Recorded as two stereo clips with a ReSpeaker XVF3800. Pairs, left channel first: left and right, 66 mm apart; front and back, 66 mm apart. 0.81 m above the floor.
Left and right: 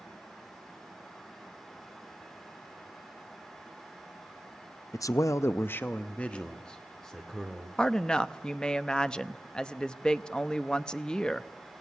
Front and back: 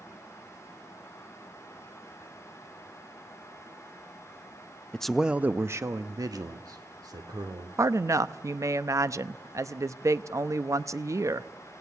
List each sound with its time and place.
4.9 s a man speaking: 75° left, 0.6 m; by 7.7 s 175° left, 2 m
7.8 s a woman speaking: 165° left, 0.6 m